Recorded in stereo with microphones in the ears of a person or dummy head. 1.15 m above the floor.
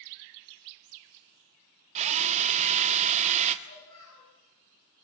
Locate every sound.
1.9 s a drill: 30° right (ahead or behind), 1.4 m
3.6 s a child speaking: 85° left, 8 m